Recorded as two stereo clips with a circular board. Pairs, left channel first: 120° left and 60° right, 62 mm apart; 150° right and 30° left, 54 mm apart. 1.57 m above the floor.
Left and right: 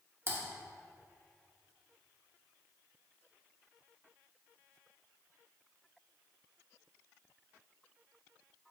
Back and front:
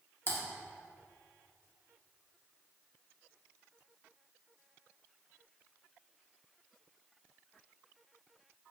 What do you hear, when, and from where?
0.3 s typing on a keyboard: 105° right, 1.7 m